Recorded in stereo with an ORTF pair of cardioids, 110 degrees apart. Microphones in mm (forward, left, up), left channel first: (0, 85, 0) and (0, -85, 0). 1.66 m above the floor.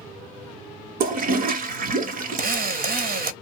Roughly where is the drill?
Ahead right.